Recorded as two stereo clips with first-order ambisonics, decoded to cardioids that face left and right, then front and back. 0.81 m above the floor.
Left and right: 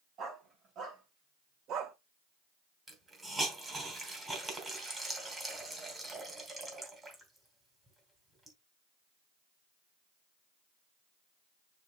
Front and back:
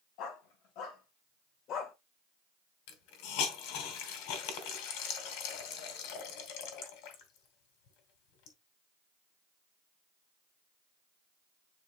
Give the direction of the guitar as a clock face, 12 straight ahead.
No guitar in this recording.